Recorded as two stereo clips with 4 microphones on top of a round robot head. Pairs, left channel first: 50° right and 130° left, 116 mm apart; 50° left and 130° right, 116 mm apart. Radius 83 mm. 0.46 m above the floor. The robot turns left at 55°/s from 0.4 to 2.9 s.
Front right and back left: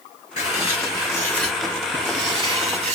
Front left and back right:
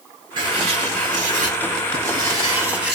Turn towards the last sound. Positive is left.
turn(degrees=145)